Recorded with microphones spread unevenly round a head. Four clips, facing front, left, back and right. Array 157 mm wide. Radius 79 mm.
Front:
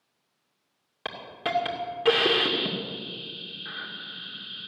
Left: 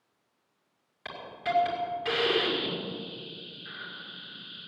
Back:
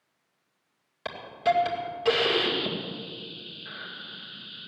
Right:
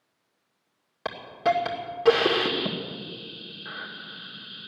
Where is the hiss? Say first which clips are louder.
Right 8 dB, back 6 dB; 65° right, 2.5 m.